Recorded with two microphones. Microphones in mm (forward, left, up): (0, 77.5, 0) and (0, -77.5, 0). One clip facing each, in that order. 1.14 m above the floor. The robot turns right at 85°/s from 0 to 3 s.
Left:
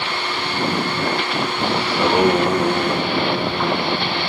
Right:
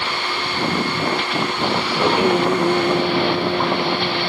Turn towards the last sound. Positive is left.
turn(degrees=-160)